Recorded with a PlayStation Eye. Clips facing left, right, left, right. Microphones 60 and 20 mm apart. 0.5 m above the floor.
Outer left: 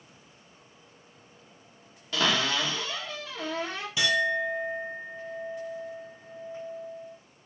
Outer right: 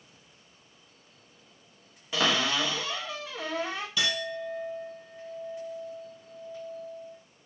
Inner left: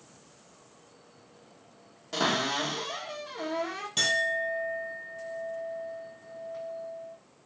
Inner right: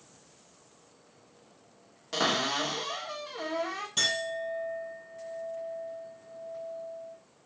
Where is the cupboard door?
15° right (ahead or behind), 1.3 m.